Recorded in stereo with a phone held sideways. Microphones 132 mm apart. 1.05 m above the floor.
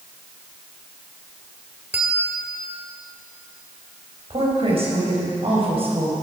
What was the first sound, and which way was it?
A bell, 10° right (ahead or behind).